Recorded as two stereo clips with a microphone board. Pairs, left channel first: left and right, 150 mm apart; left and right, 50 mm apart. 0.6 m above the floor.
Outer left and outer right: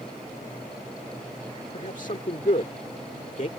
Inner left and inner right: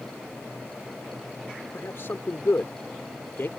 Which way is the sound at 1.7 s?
55° left (ahead or behind).